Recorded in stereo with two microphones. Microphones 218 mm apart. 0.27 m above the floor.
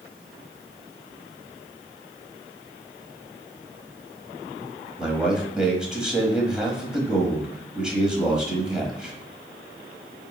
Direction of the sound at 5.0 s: 5° right (ahead or behind).